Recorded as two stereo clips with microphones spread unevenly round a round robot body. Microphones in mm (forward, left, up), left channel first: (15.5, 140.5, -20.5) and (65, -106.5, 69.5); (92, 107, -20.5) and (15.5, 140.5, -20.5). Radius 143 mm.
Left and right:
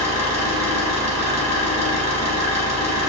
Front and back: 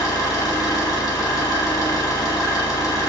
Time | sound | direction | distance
0.0 | an engine running | straight ahead | 0.9 m